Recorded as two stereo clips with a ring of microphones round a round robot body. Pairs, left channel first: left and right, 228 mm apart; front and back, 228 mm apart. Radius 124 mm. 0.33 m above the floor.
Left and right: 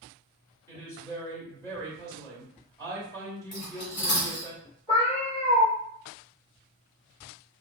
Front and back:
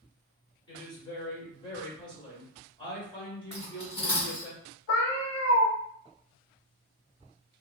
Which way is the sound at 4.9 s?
20° left.